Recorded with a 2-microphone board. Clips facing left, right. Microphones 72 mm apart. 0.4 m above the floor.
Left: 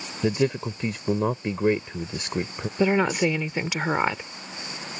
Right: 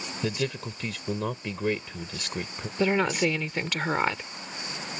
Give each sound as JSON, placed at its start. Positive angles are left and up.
{"t": 0.2, "sound": "a man speaking", "side_deg": 25}
{"t": 2.8, "sound": "a woman speaking", "side_deg": 10}